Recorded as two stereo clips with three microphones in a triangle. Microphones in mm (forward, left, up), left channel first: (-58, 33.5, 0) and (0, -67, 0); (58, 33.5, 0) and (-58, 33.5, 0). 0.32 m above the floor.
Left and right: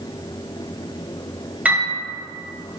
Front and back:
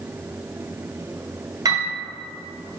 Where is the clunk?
No clunk in this recording.